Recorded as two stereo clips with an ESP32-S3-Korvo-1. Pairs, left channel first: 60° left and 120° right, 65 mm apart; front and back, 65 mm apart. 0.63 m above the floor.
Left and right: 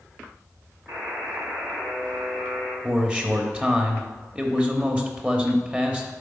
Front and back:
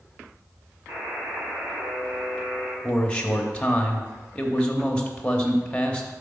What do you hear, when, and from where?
0.9 s a buzzer: 135° right, 2.5 m
2.8 s a man speaking: 65° right, 1.0 m